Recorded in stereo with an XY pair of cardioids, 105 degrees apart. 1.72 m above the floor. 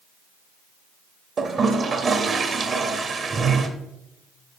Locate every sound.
1.4 s a toilet flushing: 40° right, 0.8 m